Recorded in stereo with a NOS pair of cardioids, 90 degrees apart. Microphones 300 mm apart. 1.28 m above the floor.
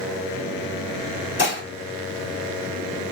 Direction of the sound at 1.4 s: 40° left.